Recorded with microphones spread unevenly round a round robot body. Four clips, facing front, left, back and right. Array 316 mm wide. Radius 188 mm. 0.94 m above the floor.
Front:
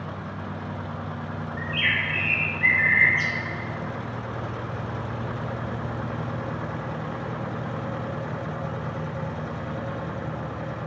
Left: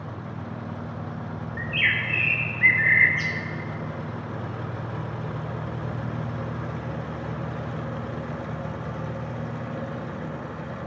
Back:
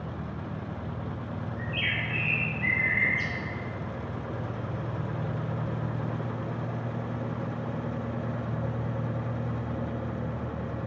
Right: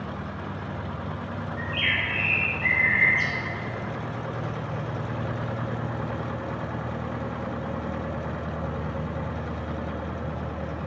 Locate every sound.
1.6 s a bird: 40° left, 1.5 m